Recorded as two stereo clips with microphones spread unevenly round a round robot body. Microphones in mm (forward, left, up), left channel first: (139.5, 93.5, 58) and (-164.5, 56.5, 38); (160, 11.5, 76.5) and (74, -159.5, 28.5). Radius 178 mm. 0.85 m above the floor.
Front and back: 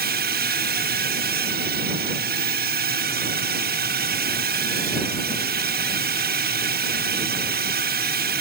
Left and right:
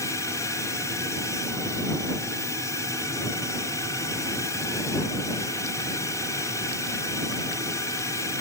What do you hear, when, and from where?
0.0 s a drone: 150° left